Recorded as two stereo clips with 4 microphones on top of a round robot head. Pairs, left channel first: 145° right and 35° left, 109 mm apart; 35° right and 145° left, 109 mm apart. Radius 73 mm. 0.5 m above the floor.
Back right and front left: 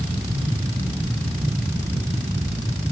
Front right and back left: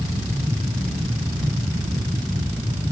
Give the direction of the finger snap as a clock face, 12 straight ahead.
I don't hear a finger snap.